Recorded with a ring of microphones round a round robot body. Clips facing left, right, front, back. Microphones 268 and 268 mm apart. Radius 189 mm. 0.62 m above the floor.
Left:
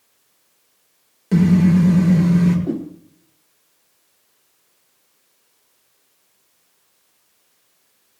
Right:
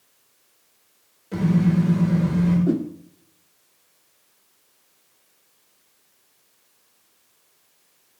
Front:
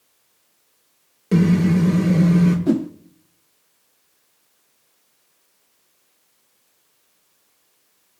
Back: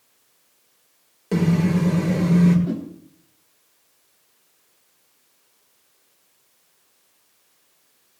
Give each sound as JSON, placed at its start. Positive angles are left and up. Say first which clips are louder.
{"t": 1.3, "sound": "a car horn", "louder": "left 6 dB, front 3 dB", "azimuth_deg": 65, "distance_m": 6.5}
{"t": 2.7, "sound": "a whoosh", "louder": "right 2 dB, front 9 dB", "azimuth_deg": -10, "distance_m": 0.6}